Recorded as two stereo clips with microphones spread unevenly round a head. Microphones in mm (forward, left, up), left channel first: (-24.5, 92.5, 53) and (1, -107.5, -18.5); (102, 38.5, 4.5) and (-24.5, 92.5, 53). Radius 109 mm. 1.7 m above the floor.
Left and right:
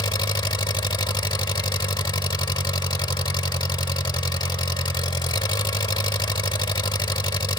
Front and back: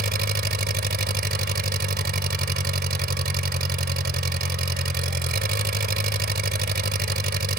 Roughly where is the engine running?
Behind.